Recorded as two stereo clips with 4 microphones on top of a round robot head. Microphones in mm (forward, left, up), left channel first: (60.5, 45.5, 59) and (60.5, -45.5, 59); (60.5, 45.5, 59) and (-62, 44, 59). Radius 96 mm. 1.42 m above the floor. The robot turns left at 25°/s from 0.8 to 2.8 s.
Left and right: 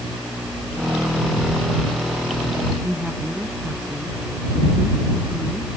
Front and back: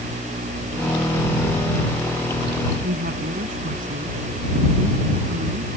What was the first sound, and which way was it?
A woman speaking, straight behind.